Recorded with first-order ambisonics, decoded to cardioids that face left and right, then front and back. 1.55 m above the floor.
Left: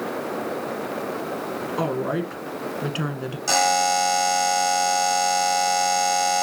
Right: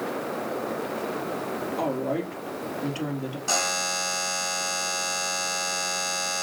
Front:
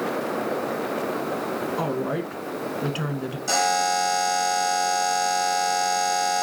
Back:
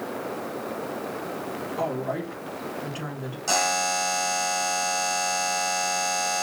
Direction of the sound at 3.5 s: 105° left.